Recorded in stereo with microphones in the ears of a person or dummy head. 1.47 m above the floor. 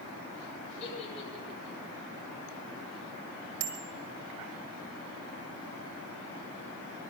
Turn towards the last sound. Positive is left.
turn(degrees=-75)  # may be behind; listen again after turning